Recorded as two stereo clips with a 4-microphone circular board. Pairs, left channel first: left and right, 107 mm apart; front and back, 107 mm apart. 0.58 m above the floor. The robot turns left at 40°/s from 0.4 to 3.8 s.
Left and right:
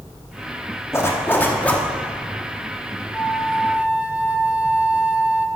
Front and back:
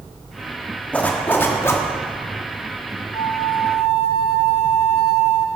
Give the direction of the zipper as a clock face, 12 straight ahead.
10 o'clock.